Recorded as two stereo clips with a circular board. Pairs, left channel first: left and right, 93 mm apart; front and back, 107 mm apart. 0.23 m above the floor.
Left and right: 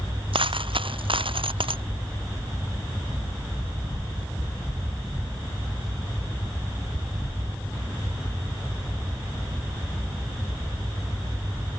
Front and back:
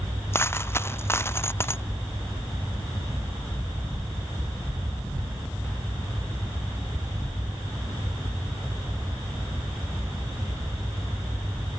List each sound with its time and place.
0.3 s a dropped coin: 70° right